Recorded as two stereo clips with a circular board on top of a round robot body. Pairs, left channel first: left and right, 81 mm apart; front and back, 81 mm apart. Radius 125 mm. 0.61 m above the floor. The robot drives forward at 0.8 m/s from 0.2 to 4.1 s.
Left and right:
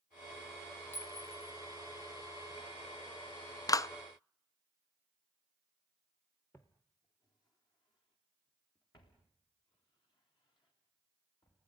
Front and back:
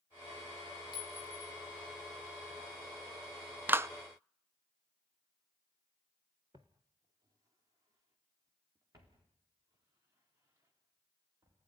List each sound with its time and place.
0.9 s a clink: 25° left, 3 m; by 1.5 s 30° left, 2.5 m
3.7 s a clap: 120° left, 0.5 m; by 3.9 s 135° left, 0.6 m
6.5 s footsteps: 150° left, 0.6 m; by 11.6 s 130° left, 7.5 m